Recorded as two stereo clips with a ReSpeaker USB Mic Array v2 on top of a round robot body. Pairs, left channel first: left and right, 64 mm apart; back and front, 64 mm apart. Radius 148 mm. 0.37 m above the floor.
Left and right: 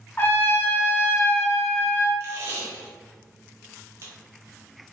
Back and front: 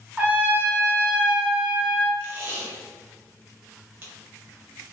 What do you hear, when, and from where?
0.2 s a trumpet: 55° left, 1.3 m
2.2 s tape being pulled: 45° right, 1.5 m